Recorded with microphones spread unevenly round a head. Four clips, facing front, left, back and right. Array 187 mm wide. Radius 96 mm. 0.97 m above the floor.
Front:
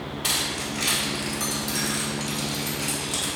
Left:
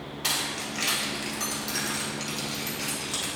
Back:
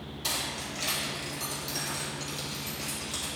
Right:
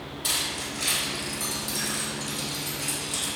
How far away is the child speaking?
No child speaking in this recording.